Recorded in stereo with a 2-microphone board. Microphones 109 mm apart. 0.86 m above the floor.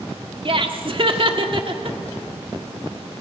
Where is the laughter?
50° right (ahead or behind), 1.8 m.